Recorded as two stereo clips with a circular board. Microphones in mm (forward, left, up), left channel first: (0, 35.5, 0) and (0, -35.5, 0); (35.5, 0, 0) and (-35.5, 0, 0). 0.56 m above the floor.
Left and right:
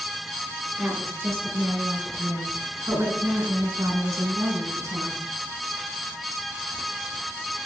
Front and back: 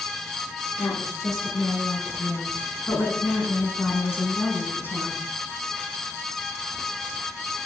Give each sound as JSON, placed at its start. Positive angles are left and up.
{"t": 0.8, "sound": "a woman speaking", "azimuth_deg": -35, "distance_m": 8.5}